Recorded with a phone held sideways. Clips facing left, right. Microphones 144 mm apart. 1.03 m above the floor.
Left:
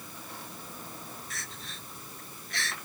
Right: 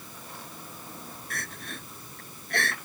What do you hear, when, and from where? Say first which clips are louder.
1.3 s crying: right 5 dB; 55° right (ahead or behind)